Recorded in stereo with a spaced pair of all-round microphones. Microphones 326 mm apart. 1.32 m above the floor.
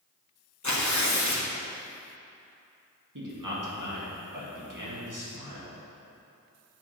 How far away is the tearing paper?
About 1.2 m.